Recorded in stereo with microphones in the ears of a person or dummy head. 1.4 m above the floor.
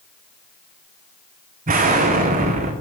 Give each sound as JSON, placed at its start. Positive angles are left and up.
{"t": 1.7, "sound": "an explosion", "side_deg": -35, "distance_m": 0.7}